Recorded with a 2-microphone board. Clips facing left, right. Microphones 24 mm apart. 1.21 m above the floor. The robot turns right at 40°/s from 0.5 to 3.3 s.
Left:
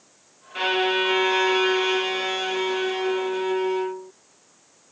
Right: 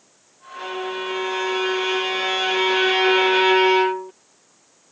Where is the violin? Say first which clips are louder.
Left 6 dB; 130° left; by 4.1 s 120° right.